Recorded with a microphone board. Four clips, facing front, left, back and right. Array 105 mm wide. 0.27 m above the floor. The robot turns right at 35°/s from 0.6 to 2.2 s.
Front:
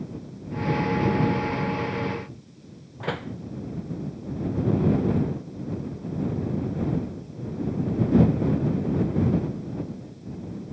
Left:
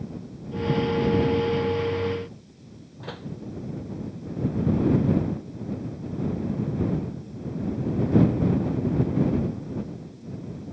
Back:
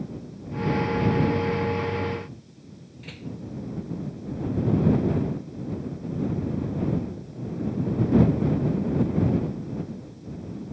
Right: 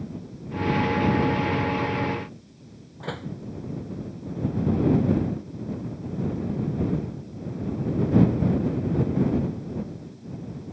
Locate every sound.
3.0 s a door slam: 15° right